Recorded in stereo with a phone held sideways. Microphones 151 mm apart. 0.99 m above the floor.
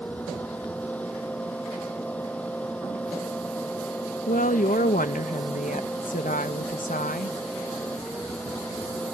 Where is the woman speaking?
55° left (ahead or behind).